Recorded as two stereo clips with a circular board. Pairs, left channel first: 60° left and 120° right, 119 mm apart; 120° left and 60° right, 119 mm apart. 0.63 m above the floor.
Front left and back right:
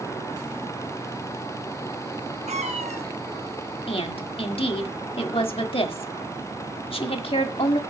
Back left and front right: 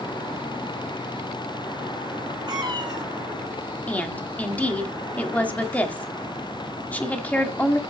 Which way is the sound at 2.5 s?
110° right.